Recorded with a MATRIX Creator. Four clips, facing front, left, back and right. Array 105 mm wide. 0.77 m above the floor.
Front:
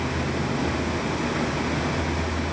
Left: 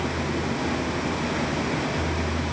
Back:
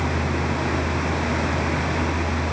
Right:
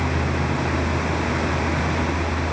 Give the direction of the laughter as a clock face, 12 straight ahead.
No laughter in this recording.